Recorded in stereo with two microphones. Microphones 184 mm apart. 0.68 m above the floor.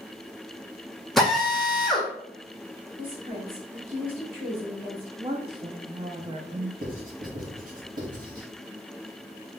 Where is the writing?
50° right (ahead or behind), 1.4 m.